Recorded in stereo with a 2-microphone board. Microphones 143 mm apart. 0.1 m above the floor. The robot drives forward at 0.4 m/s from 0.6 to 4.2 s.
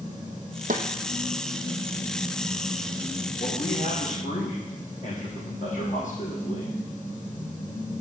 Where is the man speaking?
65° left (ahead or behind), 3.5 m; by 6.8 s 60° left (ahead or behind), 3.5 m.